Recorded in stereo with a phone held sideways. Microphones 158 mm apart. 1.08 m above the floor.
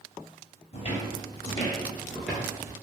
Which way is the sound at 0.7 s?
40° left (ahead or behind).